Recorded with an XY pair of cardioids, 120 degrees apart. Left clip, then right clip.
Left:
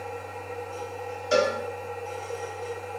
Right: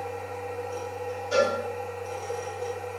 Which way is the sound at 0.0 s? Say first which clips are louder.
Right 2 dB; 45° right.